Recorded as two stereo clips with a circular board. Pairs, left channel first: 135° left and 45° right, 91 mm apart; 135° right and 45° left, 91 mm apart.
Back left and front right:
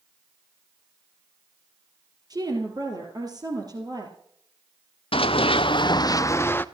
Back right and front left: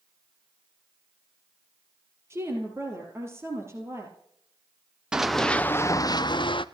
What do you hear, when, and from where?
2.3 s a woman speaking: 10° right, 3 m
5.1 s running footsteps: 125° left, 0.8 m; by 6.7 s 155° right, 0.9 m